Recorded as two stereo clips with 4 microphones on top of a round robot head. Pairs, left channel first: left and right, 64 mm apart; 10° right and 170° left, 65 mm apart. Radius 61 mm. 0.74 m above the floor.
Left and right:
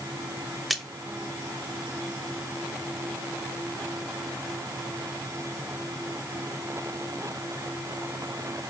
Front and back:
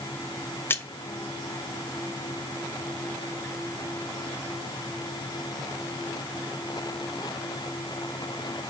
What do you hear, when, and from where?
0.7 s a splash: straight ahead, 1.2 m